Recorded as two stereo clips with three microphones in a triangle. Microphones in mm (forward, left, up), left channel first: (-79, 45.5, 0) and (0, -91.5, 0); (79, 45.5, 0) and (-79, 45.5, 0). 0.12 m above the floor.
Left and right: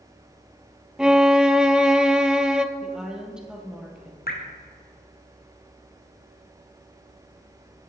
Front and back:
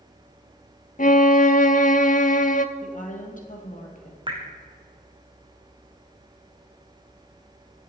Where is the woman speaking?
25° left, 2.5 m.